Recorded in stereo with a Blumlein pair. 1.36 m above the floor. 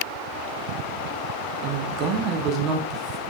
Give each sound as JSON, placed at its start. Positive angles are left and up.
{"t": 1.6, "sound": "a man speaking", "azimuth_deg": -35, "distance_m": 1.2}